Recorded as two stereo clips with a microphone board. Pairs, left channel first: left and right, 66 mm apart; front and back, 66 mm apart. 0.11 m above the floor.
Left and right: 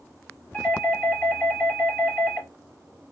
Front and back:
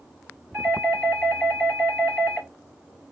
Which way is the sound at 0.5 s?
75° left.